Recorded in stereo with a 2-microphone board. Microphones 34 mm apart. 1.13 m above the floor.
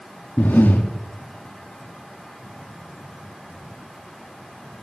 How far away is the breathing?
About 2 m.